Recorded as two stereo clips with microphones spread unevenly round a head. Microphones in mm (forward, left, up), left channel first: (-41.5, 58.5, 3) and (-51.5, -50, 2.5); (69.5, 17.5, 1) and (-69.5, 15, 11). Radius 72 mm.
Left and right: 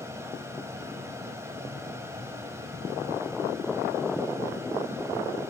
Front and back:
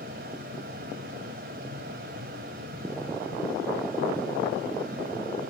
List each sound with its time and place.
0.0 s a fan: 160° right, 2.5 m